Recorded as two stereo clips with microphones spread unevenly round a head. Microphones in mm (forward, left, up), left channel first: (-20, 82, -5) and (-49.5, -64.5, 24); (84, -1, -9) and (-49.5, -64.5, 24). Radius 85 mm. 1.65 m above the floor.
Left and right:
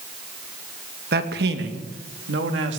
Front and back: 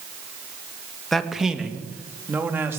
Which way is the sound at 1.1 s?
65° right.